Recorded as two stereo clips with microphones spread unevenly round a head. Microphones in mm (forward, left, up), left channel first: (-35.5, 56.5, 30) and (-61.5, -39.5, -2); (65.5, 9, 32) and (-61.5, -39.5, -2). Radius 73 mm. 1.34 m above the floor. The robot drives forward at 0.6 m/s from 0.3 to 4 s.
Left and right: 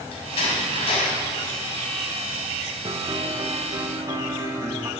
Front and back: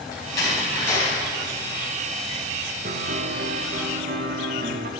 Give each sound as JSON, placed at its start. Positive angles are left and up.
{"t": 0.1, "sound": "a door slam", "azimuth_deg": 85, "distance_m": 6.0}
{"t": 2.9, "sound": "a piano", "azimuth_deg": -150, "distance_m": 1.2}